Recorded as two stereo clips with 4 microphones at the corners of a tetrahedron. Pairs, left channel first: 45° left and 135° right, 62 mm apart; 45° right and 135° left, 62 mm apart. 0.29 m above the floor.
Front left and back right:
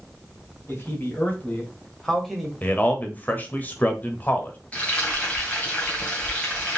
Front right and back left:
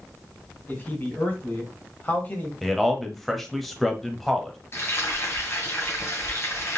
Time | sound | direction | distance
0.7 | a man speaking | 5° left | 2 m
2.6 | a man speaking | 40° left | 0.9 m
4.7 | frying | 20° right | 2 m